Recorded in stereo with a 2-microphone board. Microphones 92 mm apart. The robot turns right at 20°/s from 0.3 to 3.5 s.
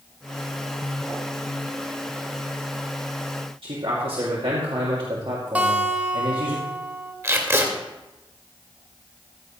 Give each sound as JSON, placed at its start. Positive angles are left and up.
{"t": 3.6, "sound": "a man speaking", "side_deg": -80, "distance_m": 2.0}
{"t": 5.5, "sound": "a guitar", "side_deg": -15, "distance_m": 1.5}
{"t": 7.2, "sound": "tape being pulled", "side_deg": -30, "distance_m": 1.7}